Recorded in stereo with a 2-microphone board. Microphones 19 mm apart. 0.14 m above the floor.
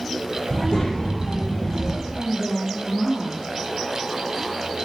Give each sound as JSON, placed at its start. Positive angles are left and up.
{"t": 0.5, "sound": "a child speaking", "side_deg": 50, "distance_m": 3.0}
{"t": 2.1, "sound": "a woman speaking", "side_deg": 55, "distance_m": 3.0}